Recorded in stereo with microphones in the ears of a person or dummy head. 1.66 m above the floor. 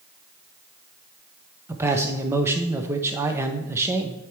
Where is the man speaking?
15° right (ahead or behind), 0.7 m.